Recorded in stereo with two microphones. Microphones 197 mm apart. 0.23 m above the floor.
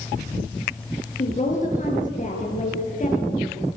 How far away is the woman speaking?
About 6 m.